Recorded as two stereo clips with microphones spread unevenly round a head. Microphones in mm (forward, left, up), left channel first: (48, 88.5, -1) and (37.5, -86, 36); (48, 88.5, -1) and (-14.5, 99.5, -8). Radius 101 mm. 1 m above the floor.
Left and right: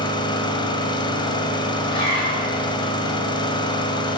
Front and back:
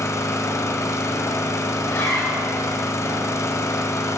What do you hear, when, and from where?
0.0 s an engine running: 15° left, 1.5 m
1.8 s a zipper: 25° left, 5 m